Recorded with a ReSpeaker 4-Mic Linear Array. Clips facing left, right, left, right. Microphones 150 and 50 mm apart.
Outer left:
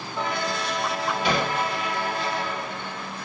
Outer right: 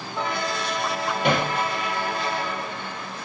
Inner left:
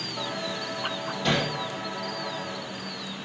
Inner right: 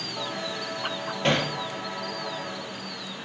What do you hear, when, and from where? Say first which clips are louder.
1.2 s hammering: outer right 3 dB, inner right 2 dB; 55° right (ahead or behind), 2.5 m